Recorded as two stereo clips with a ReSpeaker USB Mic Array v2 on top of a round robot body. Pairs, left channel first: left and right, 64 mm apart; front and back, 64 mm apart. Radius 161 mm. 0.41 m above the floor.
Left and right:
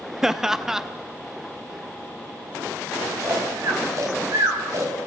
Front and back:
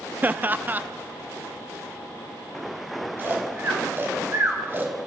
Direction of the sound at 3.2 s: 125° right.